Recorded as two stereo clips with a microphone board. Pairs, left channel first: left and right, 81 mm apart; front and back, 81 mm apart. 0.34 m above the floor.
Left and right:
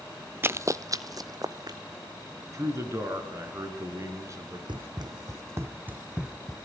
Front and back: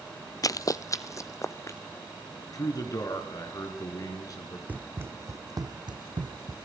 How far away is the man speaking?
About 4.5 m.